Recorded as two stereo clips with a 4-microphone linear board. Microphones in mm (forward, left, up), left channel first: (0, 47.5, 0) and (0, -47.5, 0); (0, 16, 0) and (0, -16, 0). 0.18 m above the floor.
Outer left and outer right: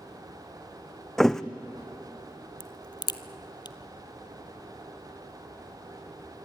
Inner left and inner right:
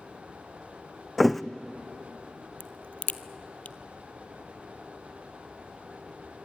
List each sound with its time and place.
1.2 s a thud: 5° left (ahead or behind), 0.9 m
2.6 s a crack: 50° left (ahead or behind), 0.9 m